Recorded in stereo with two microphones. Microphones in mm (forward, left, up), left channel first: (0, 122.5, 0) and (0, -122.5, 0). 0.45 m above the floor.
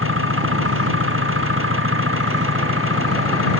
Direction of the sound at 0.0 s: 60° right (ahead or behind).